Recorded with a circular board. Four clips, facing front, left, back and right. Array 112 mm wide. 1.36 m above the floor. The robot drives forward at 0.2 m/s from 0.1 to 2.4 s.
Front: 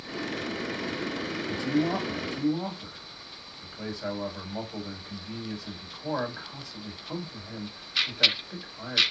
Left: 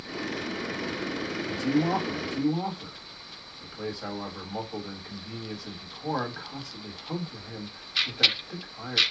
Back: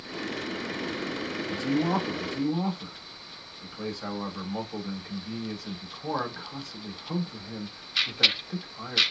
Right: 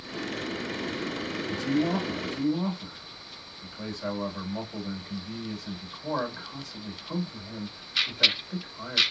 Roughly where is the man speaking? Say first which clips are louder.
Left 1 dB, even; behind left.